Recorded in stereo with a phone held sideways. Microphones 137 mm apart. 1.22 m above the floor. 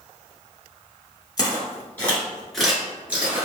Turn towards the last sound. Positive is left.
turn(degrees=-15)  # may be behind; listen again after turning